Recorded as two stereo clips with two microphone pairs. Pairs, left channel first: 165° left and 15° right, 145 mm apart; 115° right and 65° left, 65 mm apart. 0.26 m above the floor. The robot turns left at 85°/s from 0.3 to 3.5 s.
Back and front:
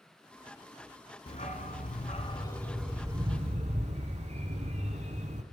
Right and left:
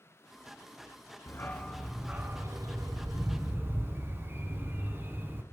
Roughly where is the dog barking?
Behind right.